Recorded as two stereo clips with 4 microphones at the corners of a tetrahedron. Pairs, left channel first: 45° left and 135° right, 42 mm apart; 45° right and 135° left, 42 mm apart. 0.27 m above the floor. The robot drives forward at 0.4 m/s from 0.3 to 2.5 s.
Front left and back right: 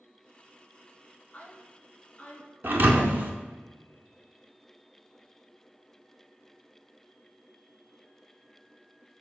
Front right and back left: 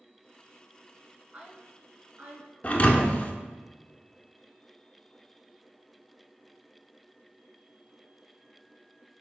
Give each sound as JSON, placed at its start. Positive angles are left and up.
{"t": 1.3, "sound": "a woman speaking", "azimuth_deg": 95, "distance_m": 2.0}
{"t": 2.6, "sound": "a thud", "azimuth_deg": -100, "distance_m": 0.5}